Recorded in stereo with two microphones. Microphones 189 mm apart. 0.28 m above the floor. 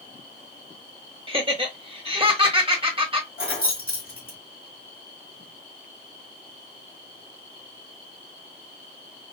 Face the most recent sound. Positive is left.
turn(degrees=55)  # may be behind; listen again after turning